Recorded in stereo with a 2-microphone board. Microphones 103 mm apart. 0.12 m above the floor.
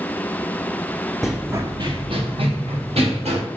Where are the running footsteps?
Centre (ahead or behind), 0.5 m; by 3.4 s 75° right (ahead or behind), 1.9 m.